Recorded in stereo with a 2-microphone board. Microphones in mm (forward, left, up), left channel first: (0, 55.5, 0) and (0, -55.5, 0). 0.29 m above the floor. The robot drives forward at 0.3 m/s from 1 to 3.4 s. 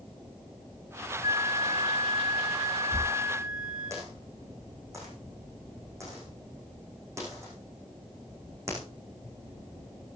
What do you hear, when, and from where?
1.2 s a flute: 35° right (ahead or behind), 3.5 m; by 3.9 s 30° right (ahead or behind), 4 m
2.9 s a dropped coin: 25° right (ahead or behind), 7.5 m